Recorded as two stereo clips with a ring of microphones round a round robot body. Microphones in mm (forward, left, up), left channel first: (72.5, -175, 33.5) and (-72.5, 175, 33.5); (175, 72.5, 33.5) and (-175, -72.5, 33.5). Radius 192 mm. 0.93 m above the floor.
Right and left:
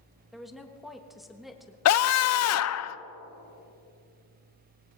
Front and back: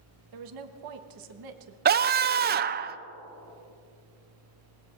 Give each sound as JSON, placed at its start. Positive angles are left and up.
{"t": 0.3, "sound": "a woman speaking", "azimuth_deg": -160, "distance_m": 1.3}
{"t": 1.9, "sound": "a scream", "azimuth_deg": -100, "distance_m": 0.5}